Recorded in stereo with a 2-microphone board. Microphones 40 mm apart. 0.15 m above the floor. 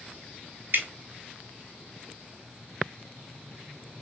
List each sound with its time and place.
0.7 s dripping: 55° right (ahead or behind), 0.8 m